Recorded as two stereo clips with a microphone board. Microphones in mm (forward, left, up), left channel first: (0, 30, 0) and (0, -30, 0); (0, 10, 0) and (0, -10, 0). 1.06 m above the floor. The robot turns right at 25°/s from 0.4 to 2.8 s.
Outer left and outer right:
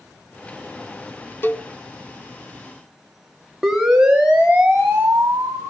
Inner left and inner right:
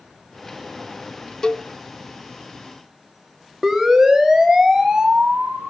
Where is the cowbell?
35° left (ahead or behind), 0.9 m; by 1.7 s 30° left (ahead or behind), 0.9 m.